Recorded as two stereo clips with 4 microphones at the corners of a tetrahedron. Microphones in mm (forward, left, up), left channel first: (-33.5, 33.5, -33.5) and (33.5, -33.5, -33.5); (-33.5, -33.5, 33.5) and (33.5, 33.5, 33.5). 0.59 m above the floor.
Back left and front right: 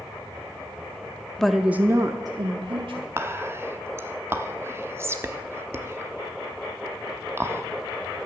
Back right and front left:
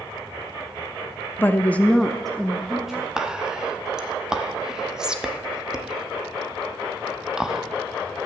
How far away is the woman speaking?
About 0.6 m.